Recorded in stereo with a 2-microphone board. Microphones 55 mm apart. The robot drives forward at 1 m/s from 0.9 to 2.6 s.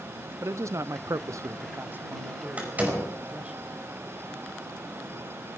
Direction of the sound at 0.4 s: 65° right (ahead or behind).